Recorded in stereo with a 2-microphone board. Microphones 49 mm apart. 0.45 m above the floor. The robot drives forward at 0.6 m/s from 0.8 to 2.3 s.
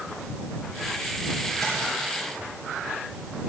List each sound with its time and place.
1.6 s tapping: 5° left (ahead or behind), 4 m